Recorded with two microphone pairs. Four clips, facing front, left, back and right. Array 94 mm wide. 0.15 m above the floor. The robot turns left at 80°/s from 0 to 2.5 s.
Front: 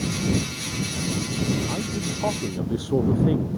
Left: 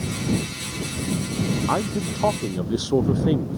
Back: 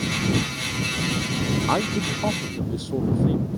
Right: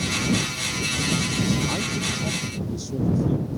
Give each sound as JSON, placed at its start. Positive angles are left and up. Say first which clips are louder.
{"t": 1.7, "sound": "a man speaking", "louder": "left 4 dB, back 5 dB", "azimuth_deg": 140}